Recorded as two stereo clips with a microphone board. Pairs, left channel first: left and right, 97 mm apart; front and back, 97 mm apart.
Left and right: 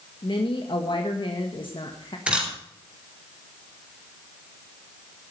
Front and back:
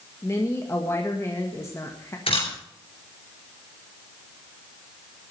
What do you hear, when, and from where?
0.2 s a woman speaking: 60° left, 1.6 m
2.3 s a camera shutter: 10° right, 4.5 m